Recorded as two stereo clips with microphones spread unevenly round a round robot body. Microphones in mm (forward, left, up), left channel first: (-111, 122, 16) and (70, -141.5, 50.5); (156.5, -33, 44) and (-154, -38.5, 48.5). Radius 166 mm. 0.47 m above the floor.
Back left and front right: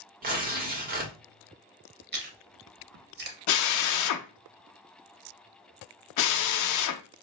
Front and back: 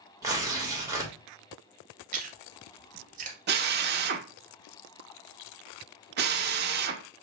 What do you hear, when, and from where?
0.2 s tearing paper: 105° right, 1.2 m
2.1 s chewing: 110° right, 0.9 m
3.5 s a drill: 125° left, 0.5 m